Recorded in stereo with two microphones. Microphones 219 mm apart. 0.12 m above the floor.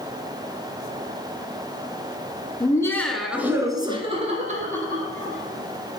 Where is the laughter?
20° left (ahead or behind), 1.6 m; by 5.4 s 45° right (ahead or behind), 3 m.